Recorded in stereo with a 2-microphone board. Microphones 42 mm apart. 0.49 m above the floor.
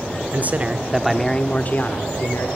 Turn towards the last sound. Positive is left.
turn(degrees=60)  # may be behind; listen again after turning